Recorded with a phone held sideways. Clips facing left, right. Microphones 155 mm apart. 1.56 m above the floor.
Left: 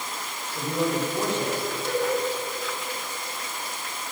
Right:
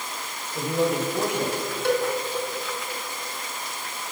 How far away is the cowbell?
About 5 m.